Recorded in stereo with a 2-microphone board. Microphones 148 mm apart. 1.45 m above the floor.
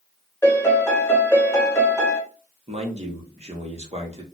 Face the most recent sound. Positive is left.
turn(degrees=-45)  # may be behind; listen again after turning